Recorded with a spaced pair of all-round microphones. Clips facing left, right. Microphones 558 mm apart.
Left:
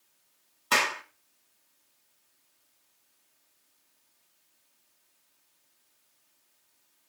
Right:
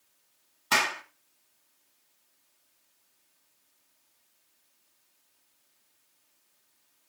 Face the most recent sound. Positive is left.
turn(degrees=-10)  # may be behind; listen again after turning